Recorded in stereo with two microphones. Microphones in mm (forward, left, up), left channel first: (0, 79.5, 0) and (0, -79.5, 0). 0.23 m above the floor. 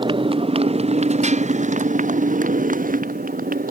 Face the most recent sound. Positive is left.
turn(degrees=-60)  # may be behind; listen again after turning